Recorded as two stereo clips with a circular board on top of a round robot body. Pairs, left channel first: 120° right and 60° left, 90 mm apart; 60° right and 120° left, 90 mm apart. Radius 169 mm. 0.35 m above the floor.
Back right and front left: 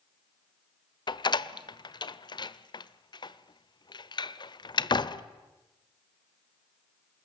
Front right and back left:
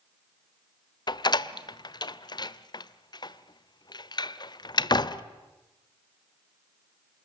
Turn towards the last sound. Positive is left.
turn(degrees=-90)